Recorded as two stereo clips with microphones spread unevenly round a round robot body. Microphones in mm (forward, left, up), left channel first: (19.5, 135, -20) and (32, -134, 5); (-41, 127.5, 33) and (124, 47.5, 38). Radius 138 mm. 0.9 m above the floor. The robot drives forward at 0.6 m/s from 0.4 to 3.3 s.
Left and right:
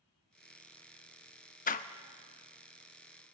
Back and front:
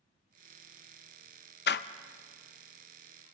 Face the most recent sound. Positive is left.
turn(degrees=170)